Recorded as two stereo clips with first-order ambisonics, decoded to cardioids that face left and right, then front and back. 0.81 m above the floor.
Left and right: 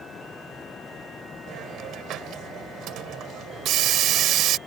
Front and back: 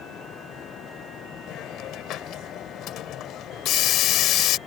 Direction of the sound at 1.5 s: 45° right.